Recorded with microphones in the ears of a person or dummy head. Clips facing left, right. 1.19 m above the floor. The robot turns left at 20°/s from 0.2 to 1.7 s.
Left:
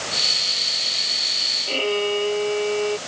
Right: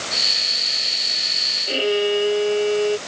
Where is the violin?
15° right (ahead or behind); by 3.0 s 20° right (ahead or behind).